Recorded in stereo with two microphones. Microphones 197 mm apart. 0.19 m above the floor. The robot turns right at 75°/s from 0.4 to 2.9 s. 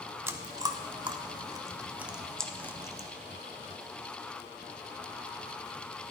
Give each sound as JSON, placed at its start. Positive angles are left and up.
{"t": 0.3, "sound": "chewing", "side_deg": -15, "distance_m": 0.6}